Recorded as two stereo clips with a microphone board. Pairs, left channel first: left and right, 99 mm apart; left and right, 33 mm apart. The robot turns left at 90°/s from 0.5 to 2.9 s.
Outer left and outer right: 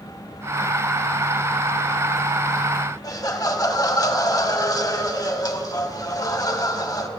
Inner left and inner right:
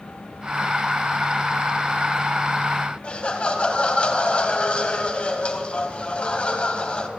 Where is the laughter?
40° left (ahead or behind), 1.2 m.